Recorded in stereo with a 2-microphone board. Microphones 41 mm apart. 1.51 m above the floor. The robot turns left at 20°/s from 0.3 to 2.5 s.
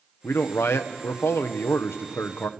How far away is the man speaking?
About 1.2 m.